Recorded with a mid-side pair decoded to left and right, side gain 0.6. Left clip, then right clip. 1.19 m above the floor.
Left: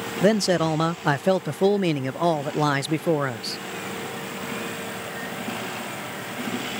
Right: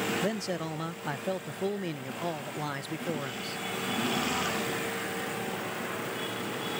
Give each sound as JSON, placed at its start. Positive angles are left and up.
{"t": 0.2, "sound": "a man speaking", "azimuth_deg": 55}